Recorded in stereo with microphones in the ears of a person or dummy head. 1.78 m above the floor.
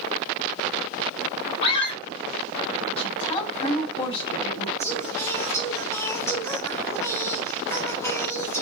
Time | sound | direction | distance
1.6 | a scream | 25° left (ahead or behind) | 3 m
3.0 | a woman speaking | 25° left (ahead or behind) | 3 m
4.8 | singing | 15° left (ahead or behind) | 1.1 m